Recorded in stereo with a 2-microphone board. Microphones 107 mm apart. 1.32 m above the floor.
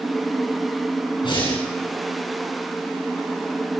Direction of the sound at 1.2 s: 45° left (ahead or behind).